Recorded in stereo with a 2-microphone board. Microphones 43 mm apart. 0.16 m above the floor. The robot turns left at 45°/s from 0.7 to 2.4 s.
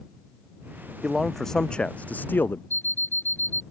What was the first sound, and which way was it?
A man speaking, 175° right.